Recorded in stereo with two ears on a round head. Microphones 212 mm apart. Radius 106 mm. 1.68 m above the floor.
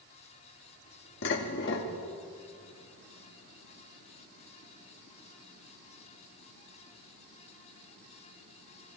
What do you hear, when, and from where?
1.2 s dishes clattering: 50° left (ahead or behind), 1.7 m